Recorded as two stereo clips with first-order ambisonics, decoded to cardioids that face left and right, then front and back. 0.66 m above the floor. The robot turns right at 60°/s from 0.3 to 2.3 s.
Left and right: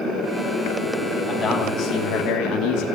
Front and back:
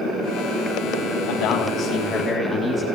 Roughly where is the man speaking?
Ahead.